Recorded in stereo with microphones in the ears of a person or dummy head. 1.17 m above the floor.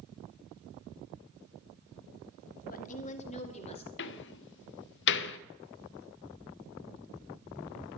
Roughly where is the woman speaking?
Left.